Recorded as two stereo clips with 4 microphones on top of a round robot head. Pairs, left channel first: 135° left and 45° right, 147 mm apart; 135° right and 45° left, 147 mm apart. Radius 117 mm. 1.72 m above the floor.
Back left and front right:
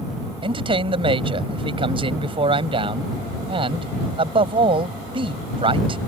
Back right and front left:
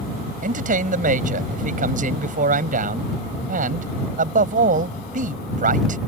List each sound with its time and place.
0.4 s a man speaking: 10° left